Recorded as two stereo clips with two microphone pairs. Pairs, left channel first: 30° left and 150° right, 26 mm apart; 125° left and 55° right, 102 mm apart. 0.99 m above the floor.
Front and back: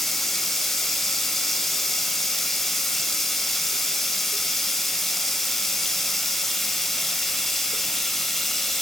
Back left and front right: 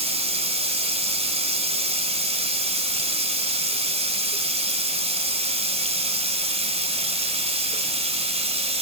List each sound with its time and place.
0.0 s running water: 45° right, 2 m